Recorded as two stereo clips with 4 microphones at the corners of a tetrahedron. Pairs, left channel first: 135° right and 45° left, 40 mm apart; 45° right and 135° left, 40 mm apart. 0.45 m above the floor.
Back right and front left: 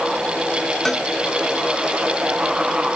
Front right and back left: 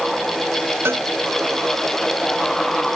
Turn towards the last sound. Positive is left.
turn(degrees=140)